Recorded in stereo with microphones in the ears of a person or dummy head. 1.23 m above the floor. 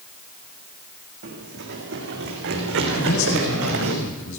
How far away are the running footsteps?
About 4 m.